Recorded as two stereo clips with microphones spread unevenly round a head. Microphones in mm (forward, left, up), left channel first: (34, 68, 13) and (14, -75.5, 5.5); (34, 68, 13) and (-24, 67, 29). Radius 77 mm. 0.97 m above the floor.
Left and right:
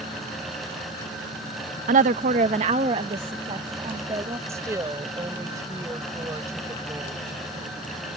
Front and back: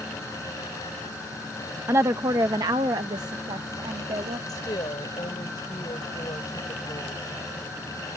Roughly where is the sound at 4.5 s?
Ahead right.